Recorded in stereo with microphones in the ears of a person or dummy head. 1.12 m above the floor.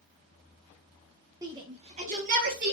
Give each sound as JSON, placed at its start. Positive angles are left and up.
{"t": 1.4, "sound": "a shout", "side_deg": -15, "distance_m": 0.8}